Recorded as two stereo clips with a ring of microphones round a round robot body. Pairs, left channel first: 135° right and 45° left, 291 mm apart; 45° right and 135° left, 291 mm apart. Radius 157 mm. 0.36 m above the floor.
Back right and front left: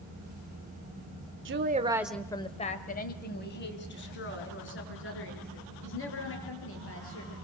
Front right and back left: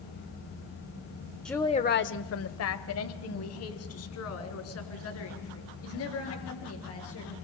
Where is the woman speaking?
40° left, 1.0 m; by 7.5 s 90° right, 8 m.